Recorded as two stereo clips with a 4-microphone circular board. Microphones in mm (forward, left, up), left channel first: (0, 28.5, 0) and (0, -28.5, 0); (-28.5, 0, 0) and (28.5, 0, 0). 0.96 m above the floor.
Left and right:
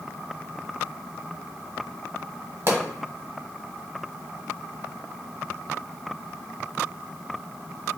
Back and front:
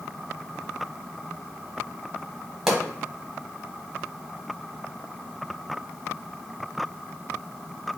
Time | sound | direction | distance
2.7 | a pop | 80° right | 1.0 m